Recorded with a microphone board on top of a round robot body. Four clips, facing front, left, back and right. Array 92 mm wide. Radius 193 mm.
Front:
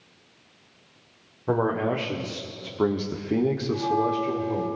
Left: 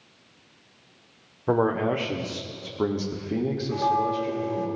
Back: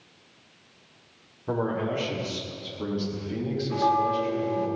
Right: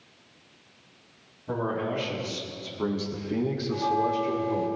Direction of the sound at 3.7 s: 160° left.